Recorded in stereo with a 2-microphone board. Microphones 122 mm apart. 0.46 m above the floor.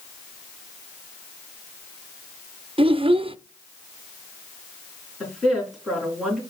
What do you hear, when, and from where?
2.8 s a child speaking: 45° right (ahead or behind), 0.5 m
5.2 s a woman speaking: 5° right (ahead or behind), 4 m